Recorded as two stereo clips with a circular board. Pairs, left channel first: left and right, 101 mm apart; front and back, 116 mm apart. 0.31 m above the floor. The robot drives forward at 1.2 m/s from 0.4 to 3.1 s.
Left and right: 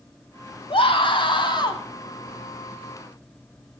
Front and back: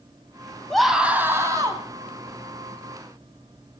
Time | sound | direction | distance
0.7 | a scream | 85° left | 1.7 m